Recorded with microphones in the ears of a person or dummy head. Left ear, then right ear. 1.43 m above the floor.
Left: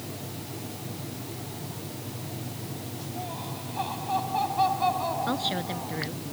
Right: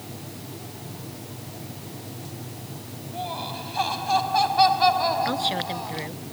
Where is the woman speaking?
15° right (ahead or behind).